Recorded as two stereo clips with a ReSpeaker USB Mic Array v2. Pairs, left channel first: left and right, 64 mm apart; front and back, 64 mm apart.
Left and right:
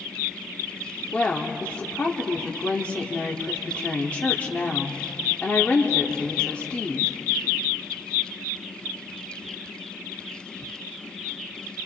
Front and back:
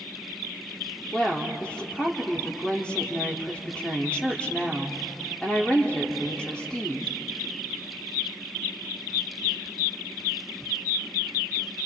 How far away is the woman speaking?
About 1.3 m.